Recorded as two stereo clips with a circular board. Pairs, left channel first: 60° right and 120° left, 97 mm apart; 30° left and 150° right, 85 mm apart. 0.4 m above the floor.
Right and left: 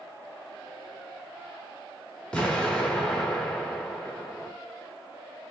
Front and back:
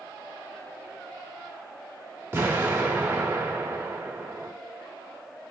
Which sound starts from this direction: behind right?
An explosion, at 2.3 s.